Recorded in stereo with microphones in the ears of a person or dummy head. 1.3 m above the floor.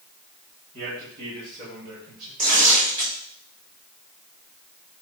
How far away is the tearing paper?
About 3.5 m.